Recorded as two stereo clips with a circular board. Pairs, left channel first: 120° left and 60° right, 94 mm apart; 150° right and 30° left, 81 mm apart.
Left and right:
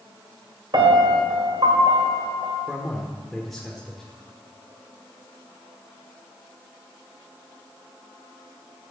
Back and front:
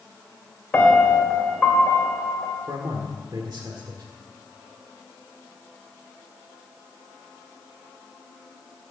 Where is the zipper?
I don't hear a zipper.